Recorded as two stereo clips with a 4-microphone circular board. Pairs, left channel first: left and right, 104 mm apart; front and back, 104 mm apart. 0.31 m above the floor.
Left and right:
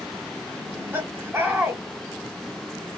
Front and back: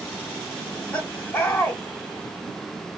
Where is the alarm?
I don't hear an alarm.